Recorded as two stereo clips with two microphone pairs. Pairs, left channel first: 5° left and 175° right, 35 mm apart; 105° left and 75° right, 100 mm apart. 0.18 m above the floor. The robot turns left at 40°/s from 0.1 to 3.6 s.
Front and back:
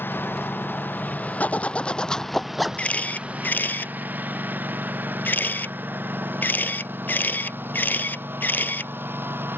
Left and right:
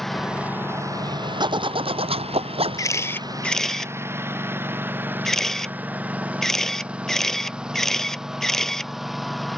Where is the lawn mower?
15° left; by 9.6 s 165° right.